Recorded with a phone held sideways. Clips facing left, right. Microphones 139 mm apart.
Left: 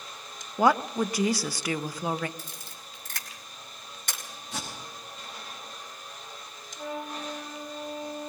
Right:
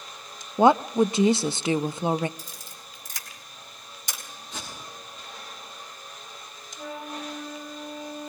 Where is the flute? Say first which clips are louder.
Left 1 dB; 70° left (ahead or behind), 5.5 m.